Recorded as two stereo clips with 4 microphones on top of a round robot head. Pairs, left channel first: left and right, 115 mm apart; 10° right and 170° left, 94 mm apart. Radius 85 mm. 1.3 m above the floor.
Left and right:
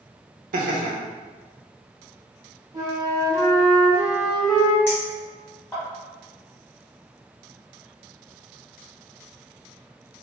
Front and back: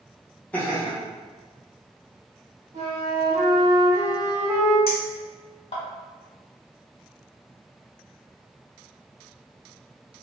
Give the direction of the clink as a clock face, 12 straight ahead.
12 o'clock.